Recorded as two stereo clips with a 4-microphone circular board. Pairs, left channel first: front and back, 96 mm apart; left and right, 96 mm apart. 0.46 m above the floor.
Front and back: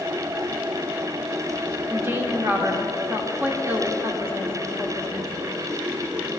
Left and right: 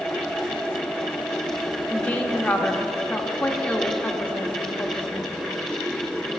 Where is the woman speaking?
150° left, 0.9 m.